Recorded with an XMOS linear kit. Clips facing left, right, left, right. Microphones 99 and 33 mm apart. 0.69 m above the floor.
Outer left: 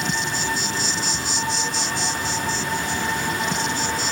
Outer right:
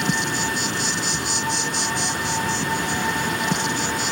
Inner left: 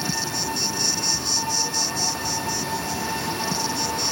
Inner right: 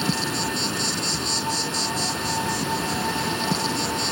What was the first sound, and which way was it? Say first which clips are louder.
An insect: outer right 2 dB, inner right 2 dB; 60° right (ahead or behind).